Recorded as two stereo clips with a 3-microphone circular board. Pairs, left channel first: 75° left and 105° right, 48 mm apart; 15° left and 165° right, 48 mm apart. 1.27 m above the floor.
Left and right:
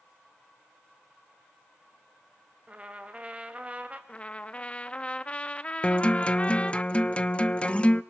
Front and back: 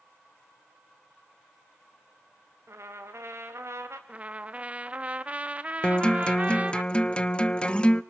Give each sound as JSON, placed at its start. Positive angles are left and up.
{"t": 2.7, "sound": "a trumpet", "azimuth_deg": -165, "distance_m": 2.0}
{"t": 4.1, "sound": "a trumpet", "azimuth_deg": 135, "distance_m": 0.6}
{"t": 5.8, "sound": "a guitar", "azimuth_deg": 50, "distance_m": 0.7}